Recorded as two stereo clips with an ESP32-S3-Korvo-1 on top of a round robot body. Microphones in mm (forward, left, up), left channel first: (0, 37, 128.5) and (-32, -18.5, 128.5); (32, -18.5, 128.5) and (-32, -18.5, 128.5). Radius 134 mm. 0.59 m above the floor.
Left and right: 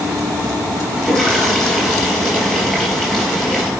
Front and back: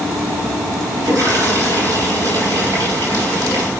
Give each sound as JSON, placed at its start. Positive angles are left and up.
{"t": 1.0, "sound": "a toilet flushing", "azimuth_deg": 140, "distance_m": 4.5}